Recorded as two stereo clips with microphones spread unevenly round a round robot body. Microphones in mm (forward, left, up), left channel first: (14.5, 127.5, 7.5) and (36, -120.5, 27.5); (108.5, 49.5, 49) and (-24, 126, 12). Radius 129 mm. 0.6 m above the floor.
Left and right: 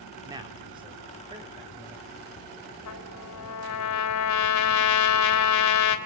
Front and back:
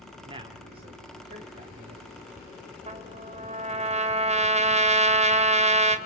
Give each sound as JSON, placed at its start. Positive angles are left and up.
{"t": 0.2, "sound": "a man speaking", "azimuth_deg": -160, "distance_m": 1.3}
{"t": 2.9, "sound": "a trumpet", "azimuth_deg": 110, "distance_m": 2.0}